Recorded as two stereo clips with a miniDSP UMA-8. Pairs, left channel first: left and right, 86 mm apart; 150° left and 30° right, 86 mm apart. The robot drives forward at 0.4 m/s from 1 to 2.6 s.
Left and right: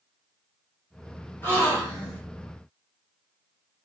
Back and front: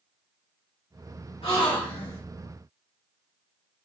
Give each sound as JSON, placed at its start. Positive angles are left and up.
{"t": 1.4, "sound": "a gasp", "azimuth_deg": 155, "distance_m": 1.8}